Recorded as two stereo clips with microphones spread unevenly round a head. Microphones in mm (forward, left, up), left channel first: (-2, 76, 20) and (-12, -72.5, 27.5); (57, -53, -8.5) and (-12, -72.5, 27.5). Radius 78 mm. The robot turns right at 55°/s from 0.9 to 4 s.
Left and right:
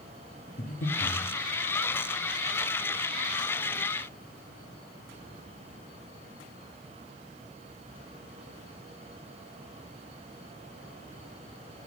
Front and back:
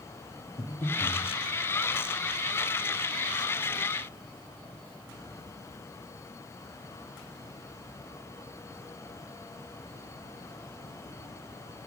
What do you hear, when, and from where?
0.6 s breathing: 45° left, 1.4 m; by 1.2 s 65° left, 1.4 m